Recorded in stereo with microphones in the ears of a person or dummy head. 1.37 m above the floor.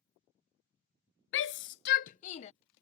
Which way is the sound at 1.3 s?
50° left (ahead or behind).